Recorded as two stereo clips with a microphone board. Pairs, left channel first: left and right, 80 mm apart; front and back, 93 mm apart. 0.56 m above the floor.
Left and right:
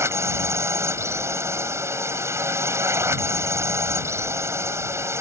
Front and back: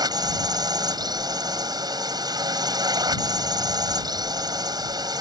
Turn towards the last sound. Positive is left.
turn(degrees=-140)